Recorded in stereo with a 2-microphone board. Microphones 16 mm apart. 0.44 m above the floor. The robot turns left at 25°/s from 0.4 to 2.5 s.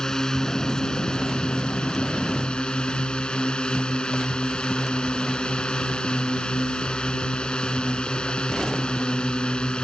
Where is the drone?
140° left; by 9.8 s 90° left.